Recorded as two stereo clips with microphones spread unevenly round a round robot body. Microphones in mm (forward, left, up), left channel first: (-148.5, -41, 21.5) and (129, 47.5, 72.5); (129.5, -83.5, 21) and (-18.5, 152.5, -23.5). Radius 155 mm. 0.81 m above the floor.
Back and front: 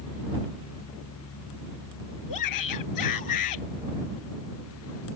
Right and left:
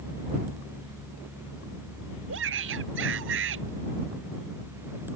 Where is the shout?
175° left.